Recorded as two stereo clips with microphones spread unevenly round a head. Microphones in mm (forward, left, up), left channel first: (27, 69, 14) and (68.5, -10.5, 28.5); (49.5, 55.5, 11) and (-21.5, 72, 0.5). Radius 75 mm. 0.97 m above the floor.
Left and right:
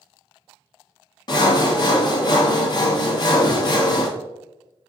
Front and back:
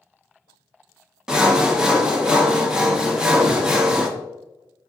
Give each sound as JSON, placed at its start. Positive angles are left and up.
{"t": 1.3, "sound": "sawing", "azimuth_deg": 90, "distance_m": 0.7}